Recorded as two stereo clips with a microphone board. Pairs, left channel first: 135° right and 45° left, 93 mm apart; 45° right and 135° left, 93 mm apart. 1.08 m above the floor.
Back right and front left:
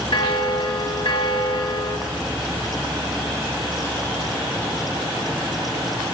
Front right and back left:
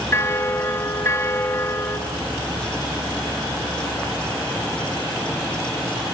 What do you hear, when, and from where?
0.1 s a bell: 110° right, 1.6 m